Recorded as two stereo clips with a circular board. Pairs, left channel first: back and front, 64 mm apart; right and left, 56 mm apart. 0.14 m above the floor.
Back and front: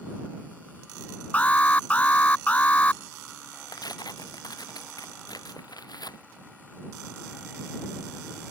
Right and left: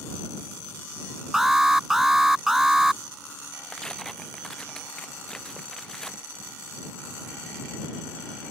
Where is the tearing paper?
170° right.